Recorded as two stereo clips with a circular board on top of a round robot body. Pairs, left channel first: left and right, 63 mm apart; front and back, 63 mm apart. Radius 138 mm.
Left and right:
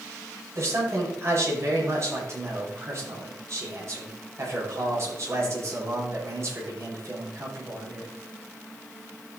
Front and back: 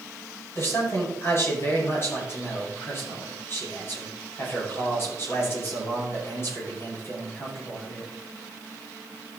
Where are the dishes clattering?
I don't hear dishes clattering.